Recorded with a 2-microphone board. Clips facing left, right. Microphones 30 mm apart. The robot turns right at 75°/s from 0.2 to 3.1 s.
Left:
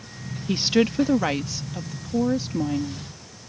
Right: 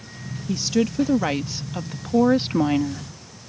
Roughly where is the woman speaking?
Behind left.